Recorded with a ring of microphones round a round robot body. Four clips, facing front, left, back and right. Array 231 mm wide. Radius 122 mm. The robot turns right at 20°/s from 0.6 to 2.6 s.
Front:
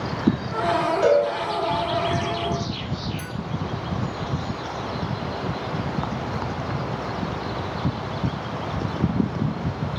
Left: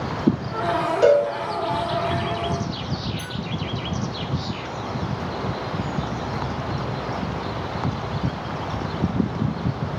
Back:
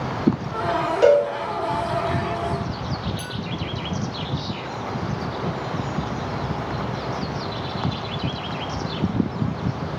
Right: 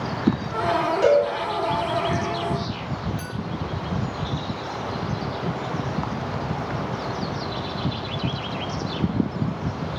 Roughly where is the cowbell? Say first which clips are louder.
Left 2 dB, back 4 dB; behind.